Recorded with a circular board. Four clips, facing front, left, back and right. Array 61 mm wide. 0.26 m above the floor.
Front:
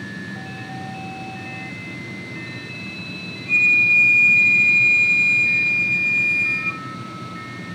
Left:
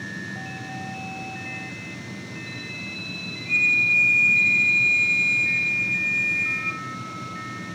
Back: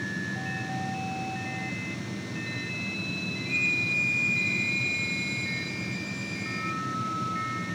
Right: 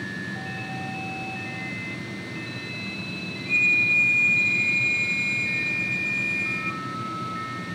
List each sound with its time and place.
3.5 s a flute: 5° right, 0.6 m